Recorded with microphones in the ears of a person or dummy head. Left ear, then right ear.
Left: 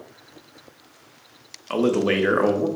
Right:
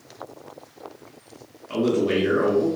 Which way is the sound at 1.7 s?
45° left (ahead or behind).